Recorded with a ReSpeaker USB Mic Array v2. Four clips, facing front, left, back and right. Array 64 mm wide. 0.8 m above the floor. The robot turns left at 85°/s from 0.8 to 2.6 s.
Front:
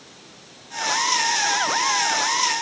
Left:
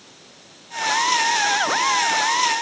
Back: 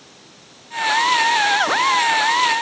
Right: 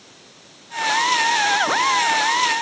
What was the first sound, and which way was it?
Only background noise.